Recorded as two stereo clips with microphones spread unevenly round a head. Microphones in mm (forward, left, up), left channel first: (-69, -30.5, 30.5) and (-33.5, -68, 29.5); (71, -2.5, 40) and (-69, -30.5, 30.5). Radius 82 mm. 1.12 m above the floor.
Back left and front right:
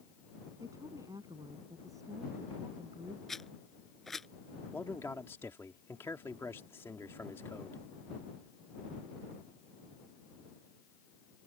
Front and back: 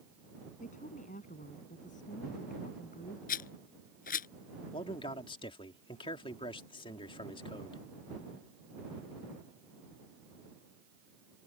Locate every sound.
0.6 s a woman speaking: 20° right; by 3.2 s 15° right
3.3 s a rattle: 45° left
4.7 s a man speaking: 70° left